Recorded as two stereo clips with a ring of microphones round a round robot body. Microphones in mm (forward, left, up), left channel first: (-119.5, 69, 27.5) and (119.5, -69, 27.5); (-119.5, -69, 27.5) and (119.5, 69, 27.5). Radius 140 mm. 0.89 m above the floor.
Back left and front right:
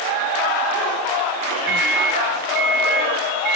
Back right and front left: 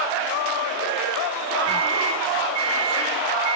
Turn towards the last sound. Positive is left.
turn(degrees=-40)